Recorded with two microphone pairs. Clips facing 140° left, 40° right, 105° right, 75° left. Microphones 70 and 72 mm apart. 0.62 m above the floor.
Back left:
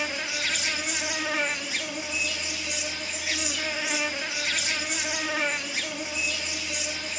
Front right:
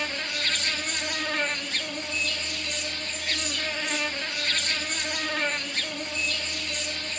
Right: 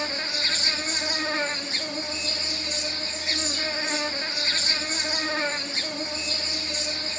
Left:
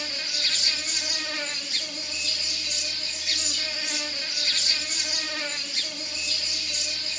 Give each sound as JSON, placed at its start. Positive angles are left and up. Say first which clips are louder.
{"t": 0.0, "sound": "an insect", "louder": "back left 1 dB, right 5 dB", "azimuth_deg": -140, "distance_m": 0.8}